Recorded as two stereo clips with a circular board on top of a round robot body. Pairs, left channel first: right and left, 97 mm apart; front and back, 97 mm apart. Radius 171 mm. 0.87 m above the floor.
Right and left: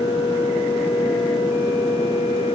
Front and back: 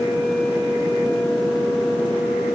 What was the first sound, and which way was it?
Only background noise.